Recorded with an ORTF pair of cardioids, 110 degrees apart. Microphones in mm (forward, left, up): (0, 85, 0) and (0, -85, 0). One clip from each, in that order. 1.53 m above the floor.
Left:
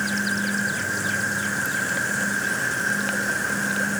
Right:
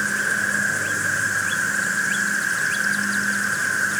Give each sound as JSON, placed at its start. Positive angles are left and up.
{"t": 0.0, "sound": "an insect", "azimuth_deg": -40}